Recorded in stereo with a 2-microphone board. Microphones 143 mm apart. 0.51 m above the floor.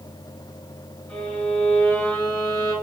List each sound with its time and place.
1.1 s a violin: 15° left (ahead or behind), 3.5 m